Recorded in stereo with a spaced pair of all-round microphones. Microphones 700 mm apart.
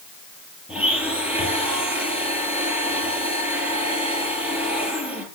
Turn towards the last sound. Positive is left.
turn(degrees=0)  # may be behind; listen again after turning